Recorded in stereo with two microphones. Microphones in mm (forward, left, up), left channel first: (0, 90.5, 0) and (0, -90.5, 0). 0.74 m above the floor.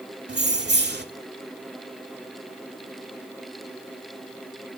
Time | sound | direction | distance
0.3 | keys jangling | 75° right (ahead or behind) | 1.3 m